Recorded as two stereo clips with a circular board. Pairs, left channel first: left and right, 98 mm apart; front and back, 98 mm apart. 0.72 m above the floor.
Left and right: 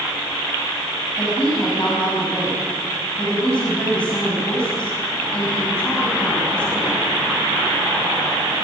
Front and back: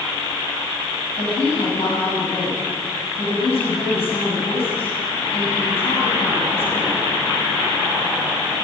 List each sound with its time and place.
1.2 s a woman speaking: 10° left, 6 m